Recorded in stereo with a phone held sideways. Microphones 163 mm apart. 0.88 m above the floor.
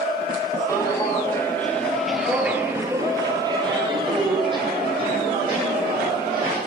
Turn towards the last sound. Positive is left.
turn(degrees=-30)  # may be behind; listen again after turning